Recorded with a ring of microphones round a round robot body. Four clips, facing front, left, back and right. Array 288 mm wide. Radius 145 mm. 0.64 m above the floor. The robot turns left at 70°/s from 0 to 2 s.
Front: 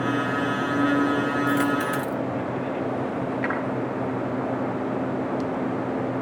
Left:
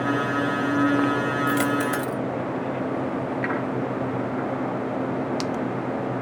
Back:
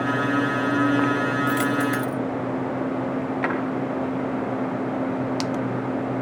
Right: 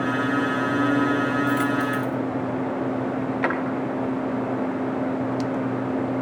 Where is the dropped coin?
130° left, 1.2 m; by 2.2 s 95° left, 1.2 m.